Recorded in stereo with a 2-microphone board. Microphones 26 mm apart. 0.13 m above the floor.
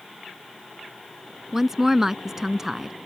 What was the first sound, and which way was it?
A woman speaking, 15° right (ahead or behind).